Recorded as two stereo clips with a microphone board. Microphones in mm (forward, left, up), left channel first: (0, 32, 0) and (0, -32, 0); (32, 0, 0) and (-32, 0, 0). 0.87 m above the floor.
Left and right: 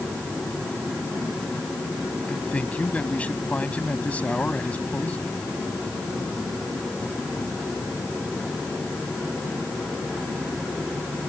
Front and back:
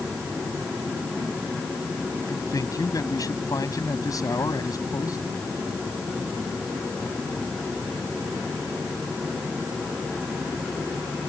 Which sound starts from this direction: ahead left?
A man speaking, at 2.3 s.